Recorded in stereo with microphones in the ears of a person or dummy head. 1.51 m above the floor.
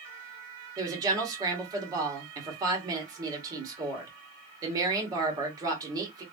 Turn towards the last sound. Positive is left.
turn(degrees=-25)  # may be behind; listen again after turning